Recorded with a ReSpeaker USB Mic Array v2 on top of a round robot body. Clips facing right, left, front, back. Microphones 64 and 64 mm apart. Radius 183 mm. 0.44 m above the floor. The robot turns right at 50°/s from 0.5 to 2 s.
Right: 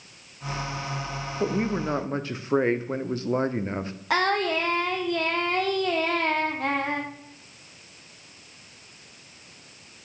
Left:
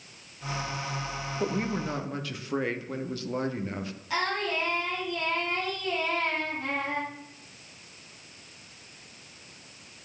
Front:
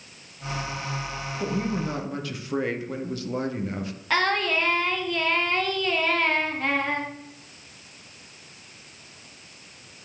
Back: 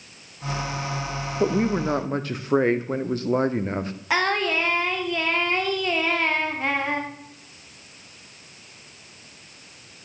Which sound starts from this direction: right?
Singing, at 4.1 s.